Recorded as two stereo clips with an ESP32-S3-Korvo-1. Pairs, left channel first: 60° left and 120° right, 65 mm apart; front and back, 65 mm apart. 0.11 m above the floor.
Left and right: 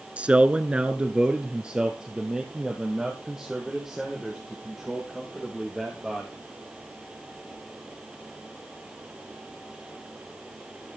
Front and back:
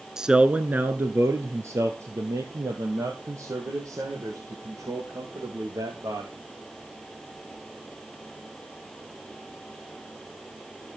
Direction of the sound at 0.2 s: 125° right.